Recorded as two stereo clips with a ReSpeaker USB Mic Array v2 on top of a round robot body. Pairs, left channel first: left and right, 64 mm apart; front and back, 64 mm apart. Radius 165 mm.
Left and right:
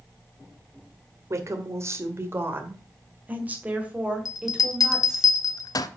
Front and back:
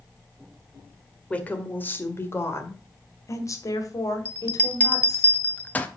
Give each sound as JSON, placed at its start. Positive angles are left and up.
{"t": 1.3, "sound": "a woman speaking", "azimuth_deg": -65, "distance_m": 2.0}
{"t": 4.2, "sound": "a bell", "azimuth_deg": 65, "distance_m": 0.8}